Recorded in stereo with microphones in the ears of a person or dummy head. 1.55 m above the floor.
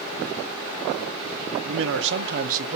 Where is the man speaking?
80° right, 1.0 m; by 2.8 s 40° right (ahead or behind), 0.7 m.